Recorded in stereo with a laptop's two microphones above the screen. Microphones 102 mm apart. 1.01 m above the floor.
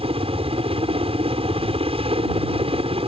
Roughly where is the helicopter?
Right.